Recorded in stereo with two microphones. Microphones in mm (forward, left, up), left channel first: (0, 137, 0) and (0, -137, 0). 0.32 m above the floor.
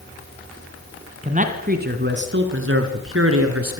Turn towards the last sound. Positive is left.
turn(degrees=-55)  # may be behind; listen again after turning